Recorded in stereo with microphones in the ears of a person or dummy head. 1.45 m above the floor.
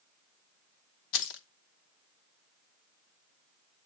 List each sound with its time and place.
1.1 s keys jangling: 65° left (ahead or behind), 0.9 m